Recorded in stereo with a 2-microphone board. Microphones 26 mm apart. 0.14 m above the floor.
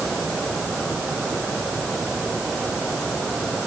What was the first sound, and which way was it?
Only background noise.